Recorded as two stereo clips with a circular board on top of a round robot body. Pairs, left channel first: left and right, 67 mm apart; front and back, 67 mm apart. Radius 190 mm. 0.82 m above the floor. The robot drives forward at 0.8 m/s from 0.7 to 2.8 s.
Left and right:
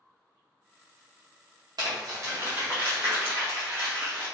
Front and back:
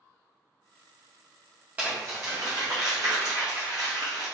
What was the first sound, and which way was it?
Crumpling, 110° right.